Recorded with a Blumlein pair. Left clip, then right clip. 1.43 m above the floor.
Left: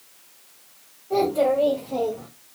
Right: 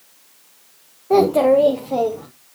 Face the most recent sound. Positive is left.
turn(degrees=-70)